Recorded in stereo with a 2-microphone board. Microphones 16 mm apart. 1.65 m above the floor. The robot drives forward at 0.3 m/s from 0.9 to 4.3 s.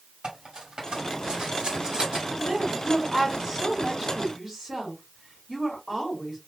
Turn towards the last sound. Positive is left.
turn(degrees=-30)  # may be behind; listen again after turning